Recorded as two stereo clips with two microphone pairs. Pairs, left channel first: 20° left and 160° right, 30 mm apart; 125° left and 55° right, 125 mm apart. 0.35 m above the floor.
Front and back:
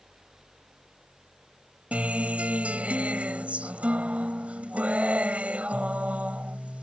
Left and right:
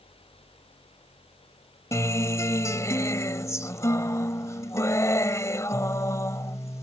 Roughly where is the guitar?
Behind.